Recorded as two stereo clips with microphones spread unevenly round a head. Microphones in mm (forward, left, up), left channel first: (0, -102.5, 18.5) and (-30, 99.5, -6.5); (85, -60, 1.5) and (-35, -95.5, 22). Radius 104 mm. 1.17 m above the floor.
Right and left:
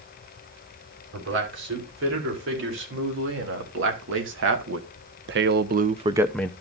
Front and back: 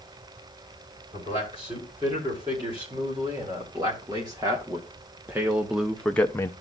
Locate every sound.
1.1 s a man speaking: 125° left, 4 m; by 6.5 s 5° right, 0.5 m